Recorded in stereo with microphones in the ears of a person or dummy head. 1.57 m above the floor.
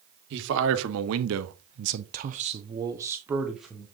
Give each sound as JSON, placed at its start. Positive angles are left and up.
{"t": 0.3, "sound": "a man speaking", "side_deg": -65, "distance_m": 1.3}